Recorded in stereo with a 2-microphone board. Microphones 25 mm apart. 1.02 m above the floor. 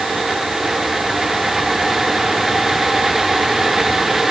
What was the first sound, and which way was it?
Only background noise.